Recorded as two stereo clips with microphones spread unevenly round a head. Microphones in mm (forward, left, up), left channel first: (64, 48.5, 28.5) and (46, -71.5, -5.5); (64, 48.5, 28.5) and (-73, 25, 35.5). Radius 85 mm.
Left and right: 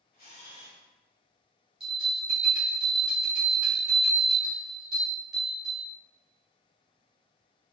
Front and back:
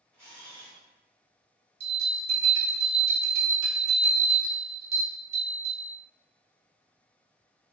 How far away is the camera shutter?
About 1.7 m.